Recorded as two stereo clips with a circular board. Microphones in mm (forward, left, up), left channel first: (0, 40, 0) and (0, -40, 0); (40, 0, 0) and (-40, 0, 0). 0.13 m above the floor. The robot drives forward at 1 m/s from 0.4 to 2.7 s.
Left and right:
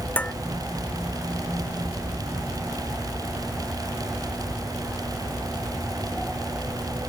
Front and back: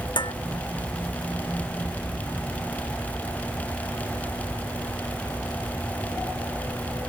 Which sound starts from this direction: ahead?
Dishes clattering, at 0.2 s.